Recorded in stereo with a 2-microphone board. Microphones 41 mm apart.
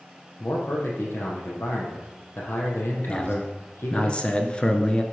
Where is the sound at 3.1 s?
25° left (ahead or behind), 1.2 m.